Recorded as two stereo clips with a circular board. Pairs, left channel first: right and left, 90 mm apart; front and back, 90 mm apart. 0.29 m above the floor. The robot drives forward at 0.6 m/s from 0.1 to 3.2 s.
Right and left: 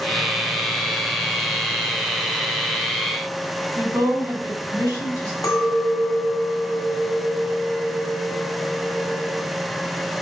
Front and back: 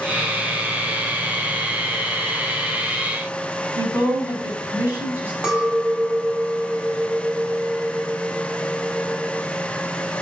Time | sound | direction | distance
3.8 | a woman speaking | 120° left | 2.0 m
5.4 | a clink | 105° right | 1.0 m